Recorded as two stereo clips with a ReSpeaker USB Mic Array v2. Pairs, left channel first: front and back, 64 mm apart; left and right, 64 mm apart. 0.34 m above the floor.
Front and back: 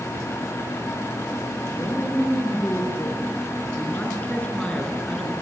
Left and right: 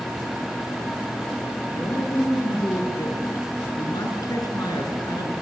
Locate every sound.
1.7 s a man speaking: 40° left, 6.5 m; by 5.3 s 85° left, 5 m